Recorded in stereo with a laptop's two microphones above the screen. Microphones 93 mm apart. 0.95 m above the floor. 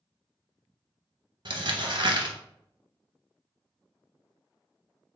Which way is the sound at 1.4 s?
50° right (ahead or behind).